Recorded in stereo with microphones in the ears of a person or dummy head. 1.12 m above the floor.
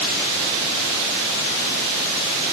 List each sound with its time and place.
Only background noise.